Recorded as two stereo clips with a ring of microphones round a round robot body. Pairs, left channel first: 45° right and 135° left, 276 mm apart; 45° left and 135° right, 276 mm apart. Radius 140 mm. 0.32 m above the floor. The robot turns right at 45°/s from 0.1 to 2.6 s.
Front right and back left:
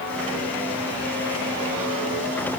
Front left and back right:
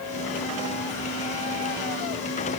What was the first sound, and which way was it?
Only background noise.